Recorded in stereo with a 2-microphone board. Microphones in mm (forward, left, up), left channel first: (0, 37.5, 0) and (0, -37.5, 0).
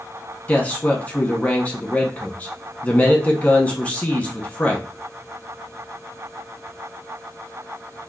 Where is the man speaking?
20° left (ahead or behind), 1.1 m.